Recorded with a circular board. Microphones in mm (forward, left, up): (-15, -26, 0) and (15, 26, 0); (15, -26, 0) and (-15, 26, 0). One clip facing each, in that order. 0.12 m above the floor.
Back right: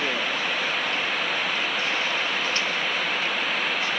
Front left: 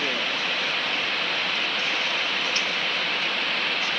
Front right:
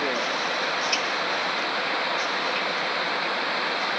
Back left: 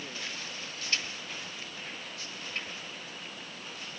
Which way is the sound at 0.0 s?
35° right.